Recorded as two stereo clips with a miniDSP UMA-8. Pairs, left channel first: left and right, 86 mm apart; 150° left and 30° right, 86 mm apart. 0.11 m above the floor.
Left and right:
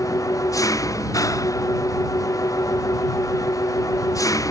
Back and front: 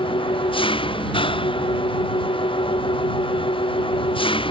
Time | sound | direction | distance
0.0 | an engine running | 140° left | ?